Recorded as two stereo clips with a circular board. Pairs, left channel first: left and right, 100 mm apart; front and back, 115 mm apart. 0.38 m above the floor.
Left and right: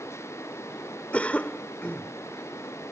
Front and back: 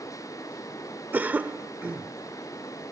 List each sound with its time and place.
1.1 s a cough: 140° left